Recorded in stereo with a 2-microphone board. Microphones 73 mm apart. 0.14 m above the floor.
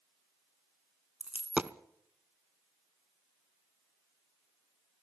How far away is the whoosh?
No whoosh in this recording.